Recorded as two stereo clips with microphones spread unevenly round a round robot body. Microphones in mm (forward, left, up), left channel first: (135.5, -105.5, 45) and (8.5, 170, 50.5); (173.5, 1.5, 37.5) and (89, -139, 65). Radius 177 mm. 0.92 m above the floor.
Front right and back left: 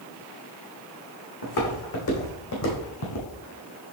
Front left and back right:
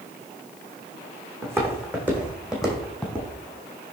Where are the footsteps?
50° right, 4 m; by 3.3 s 25° right, 3 m.